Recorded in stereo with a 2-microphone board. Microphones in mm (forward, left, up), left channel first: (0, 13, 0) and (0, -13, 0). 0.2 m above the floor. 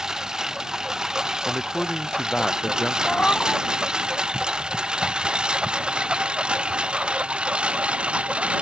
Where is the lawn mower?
25° right (ahead or behind); by 8.6 s 55° right (ahead or behind).